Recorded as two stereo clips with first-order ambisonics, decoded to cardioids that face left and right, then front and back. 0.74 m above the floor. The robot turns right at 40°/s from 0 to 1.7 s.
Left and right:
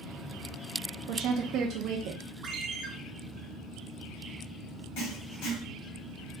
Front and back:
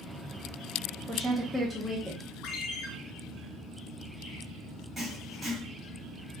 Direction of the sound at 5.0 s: 95° left.